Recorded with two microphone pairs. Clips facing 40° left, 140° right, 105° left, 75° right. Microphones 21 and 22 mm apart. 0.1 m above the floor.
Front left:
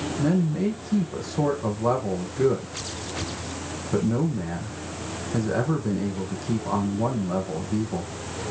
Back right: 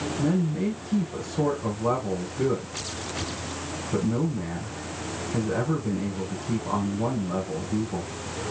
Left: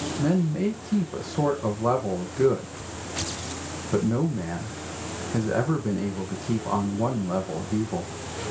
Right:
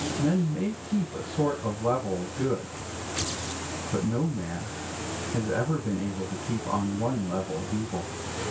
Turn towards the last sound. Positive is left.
turn(degrees=100)